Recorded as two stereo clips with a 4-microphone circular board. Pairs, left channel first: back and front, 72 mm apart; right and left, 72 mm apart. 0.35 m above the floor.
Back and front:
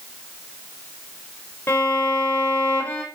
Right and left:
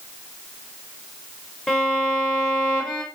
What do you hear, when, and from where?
1.7 s a violin: 165° right, 0.6 m